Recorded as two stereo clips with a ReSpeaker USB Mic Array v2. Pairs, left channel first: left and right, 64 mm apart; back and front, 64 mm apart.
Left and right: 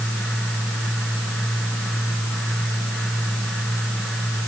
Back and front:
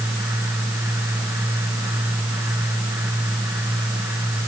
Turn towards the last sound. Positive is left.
No sound to turn to.